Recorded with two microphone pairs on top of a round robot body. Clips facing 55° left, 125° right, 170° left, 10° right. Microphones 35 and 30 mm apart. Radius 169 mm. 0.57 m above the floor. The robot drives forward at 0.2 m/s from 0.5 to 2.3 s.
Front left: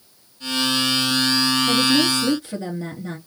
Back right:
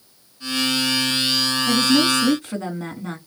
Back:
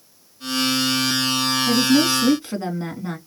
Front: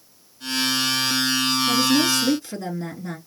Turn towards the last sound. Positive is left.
turn(degrees=-150)